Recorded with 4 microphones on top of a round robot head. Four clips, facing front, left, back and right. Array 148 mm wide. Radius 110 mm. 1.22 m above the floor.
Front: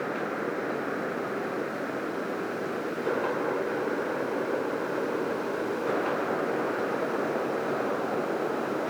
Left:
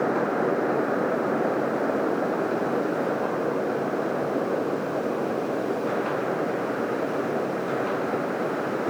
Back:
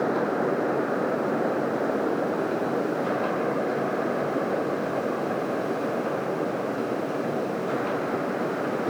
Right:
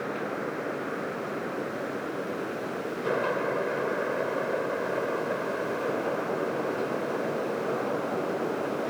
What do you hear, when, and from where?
Only background noise.